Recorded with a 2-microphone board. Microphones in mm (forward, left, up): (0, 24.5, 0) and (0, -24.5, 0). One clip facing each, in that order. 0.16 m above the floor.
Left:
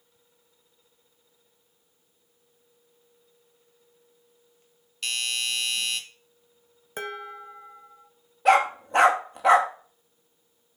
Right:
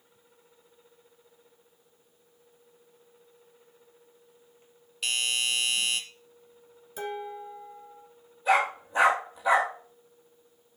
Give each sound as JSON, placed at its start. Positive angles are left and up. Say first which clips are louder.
{"t": 5.0, "sound": "a doorbell", "louder": "right 1 dB", "side_deg": -5, "distance_m": 2.0}
{"t": 7.0, "sound": "dishes clattering", "louder": "even", "side_deg": 50, "distance_m": 1.5}
{"t": 8.4, "sound": "a dog barking", "louder": "left 5 dB", "side_deg": 70, "distance_m": 1.8}